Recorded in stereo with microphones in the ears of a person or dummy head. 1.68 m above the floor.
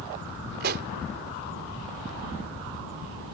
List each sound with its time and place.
0.6 s a pop: 55° right (ahead or behind)